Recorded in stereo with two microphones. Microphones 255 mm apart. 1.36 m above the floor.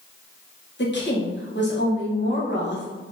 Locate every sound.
0.8 s a woman speaking: 50° left (ahead or behind), 1.1 m